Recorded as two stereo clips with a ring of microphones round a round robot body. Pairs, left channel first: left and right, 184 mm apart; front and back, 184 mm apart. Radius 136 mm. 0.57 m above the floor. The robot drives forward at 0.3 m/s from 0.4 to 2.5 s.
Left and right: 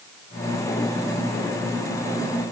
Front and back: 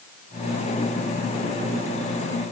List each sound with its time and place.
Only background noise.